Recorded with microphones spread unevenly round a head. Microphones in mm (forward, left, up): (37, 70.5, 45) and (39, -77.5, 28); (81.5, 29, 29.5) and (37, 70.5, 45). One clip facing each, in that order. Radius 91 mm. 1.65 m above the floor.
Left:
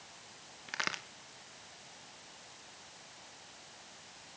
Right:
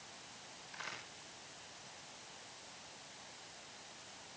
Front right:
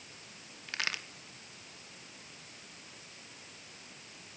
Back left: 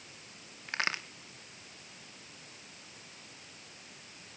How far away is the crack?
About 2 m.